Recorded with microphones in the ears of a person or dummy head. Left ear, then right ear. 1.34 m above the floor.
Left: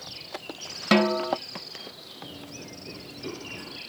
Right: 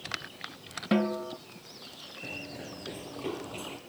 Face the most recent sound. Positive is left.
turn(degrees=-20)  # may be behind; listen again after turning